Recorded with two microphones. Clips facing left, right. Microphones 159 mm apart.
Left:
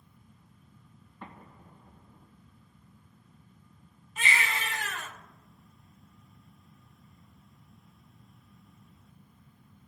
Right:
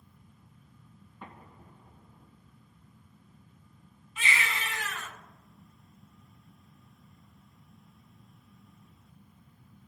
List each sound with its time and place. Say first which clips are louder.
1.2 s an explosion: left 1 dB; 5° right (ahead or behind), 3 m
4.2 s a baby crying: left 1 dB; 45° left (ahead or behind), 2 m